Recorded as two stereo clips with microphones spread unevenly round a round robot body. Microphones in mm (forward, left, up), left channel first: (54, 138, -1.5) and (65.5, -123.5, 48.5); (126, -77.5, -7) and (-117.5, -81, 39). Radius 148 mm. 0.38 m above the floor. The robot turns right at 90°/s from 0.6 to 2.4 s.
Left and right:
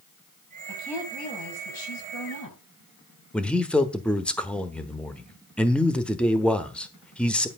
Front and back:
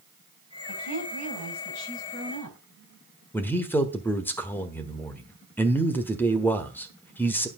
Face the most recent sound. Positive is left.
turn(degrees=40)